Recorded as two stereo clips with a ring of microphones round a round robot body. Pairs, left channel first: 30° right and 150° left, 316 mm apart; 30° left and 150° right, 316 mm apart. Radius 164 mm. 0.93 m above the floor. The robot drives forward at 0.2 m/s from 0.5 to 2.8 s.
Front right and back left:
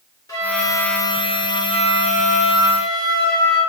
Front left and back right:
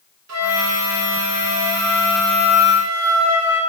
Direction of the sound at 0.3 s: 110° right.